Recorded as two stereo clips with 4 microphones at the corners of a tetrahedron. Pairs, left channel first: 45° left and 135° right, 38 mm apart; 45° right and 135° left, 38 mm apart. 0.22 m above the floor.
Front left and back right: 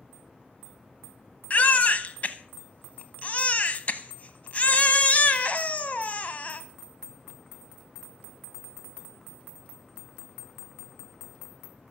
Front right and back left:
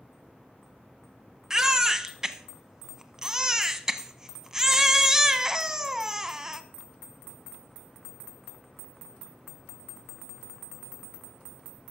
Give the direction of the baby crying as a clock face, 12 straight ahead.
10 o'clock.